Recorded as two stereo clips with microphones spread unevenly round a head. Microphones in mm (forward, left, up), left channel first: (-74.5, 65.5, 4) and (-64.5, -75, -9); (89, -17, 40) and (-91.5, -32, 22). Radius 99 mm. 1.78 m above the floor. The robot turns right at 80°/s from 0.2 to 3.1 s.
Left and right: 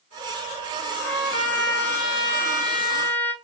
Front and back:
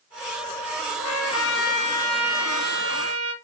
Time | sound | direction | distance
1.0 | a trumpet | straight ahead | 2 m